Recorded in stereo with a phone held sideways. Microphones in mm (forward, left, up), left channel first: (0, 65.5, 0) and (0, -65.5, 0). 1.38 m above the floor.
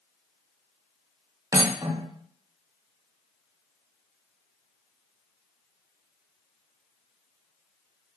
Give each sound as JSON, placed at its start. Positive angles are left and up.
{"t": 1.5, "sound": "cutlery clinking", "side_deg": -25, "distance_m": 0.5}